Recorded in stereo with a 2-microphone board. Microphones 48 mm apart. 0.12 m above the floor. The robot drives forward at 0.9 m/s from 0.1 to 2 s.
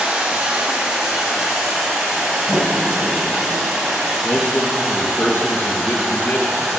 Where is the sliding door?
10° left (ahead or behind), 4.5 m.